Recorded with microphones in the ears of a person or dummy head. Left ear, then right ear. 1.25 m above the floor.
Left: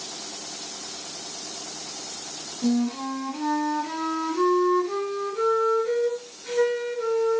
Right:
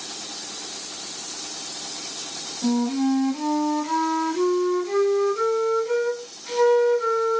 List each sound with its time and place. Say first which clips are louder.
2.6 s a flute: right 3 dB; 25° left (ahead or behind), 1.8 m